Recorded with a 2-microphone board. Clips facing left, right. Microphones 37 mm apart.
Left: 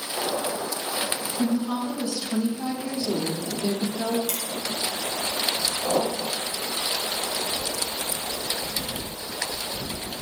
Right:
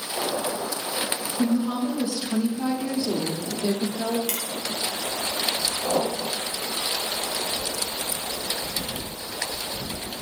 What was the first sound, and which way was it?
A woman speaking, 20° right (ahead or behind).